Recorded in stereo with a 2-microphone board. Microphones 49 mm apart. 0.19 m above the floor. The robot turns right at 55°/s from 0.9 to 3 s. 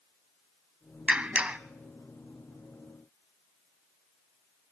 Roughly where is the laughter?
I don't hear laughter.